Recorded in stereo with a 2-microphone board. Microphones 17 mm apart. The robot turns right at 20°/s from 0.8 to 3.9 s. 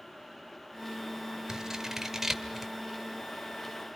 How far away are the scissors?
About 2 m.